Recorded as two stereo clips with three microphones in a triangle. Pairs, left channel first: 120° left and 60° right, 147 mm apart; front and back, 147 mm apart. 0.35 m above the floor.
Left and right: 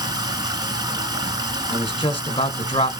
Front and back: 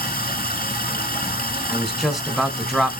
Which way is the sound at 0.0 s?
5° left.